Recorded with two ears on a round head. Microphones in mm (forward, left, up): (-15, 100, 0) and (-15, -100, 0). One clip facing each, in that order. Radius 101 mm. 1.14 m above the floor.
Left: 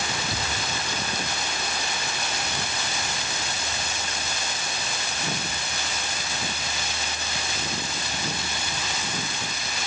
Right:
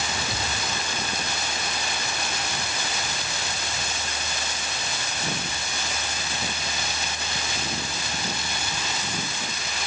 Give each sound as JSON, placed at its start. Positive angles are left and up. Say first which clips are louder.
{"t": 0.3, "sound": "a thud", "louder": "even", "side_deg": 0}